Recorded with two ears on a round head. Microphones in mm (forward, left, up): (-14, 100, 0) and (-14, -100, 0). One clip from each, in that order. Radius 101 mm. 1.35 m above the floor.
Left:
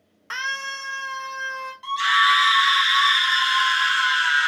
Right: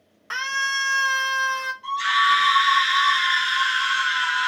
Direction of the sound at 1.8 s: 45° left (ahead or behind).